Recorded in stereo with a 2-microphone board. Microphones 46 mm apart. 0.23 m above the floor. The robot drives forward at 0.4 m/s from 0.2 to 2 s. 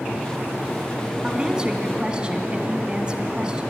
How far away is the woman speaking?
About 2 m.